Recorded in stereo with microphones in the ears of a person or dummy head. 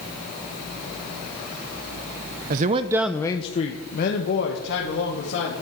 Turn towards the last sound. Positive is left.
turn(degrees=65)  # may be behind; listen again after turning